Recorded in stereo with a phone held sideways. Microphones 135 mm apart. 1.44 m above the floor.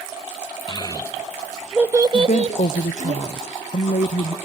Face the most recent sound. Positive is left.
turn(degrees=65)  # may be behind; listen again after turning